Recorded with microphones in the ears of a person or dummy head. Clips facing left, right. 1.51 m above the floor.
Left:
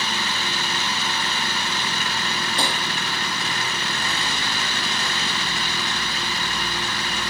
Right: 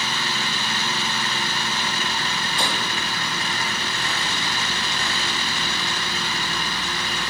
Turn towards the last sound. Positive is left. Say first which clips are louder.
# left 1 dB
turn(degrees=35)  # may be behind; listen again after turning